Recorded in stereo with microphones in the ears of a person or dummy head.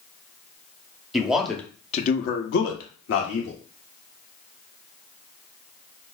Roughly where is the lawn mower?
I don't hear a lawn mower.